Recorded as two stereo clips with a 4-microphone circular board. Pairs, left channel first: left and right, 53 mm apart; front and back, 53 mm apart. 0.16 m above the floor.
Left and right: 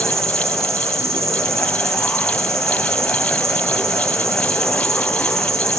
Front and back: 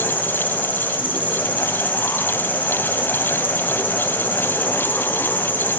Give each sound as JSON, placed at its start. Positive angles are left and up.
{"t": 0.0, "sound": "an insect", "azimuth_deg": -55, "distance_m": 3.5}